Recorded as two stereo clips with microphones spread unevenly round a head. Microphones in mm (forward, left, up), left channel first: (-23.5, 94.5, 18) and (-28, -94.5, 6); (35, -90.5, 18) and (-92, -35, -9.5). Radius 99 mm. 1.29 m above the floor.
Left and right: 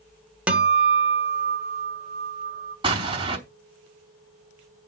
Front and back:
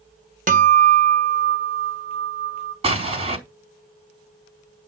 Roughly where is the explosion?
Behind right.